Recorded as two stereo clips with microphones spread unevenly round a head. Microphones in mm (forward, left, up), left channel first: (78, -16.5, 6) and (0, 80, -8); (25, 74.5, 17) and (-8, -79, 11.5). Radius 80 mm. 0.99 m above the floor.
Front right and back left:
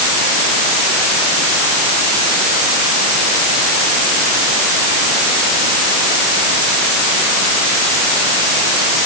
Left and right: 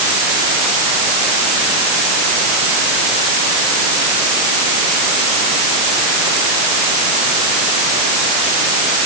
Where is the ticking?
I don't hear ticking.